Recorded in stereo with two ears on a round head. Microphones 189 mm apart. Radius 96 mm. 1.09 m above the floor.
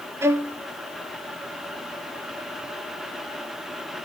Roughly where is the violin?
Centre.